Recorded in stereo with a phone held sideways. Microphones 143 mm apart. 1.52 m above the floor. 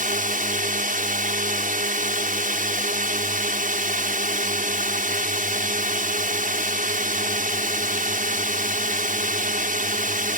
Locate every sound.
0.0 s a drone: 70° right (ahead or behind)